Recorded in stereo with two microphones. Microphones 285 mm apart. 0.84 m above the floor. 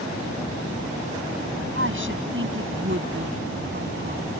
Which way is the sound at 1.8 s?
45° right (ahead or behind).